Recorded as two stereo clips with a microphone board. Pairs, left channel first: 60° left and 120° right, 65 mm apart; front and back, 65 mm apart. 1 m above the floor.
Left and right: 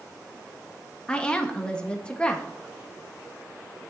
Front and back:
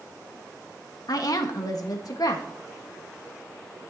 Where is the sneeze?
No sneeze in this recording.